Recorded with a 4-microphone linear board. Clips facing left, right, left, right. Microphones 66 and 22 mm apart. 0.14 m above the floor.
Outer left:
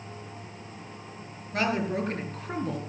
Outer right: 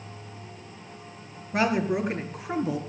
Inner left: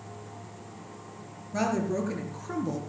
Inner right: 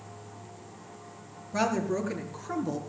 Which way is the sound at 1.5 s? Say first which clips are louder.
Outer right 3 dB, even; 20° right (ahead or behind).